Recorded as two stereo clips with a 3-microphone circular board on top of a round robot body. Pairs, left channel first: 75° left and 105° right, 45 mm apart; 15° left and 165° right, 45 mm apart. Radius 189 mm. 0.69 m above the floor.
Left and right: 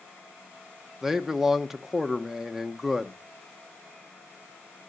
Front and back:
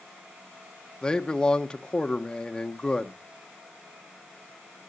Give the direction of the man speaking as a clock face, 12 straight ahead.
1 o'clock.